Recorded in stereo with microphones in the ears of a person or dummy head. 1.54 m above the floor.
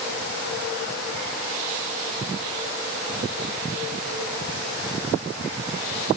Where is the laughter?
I don't hear laughter.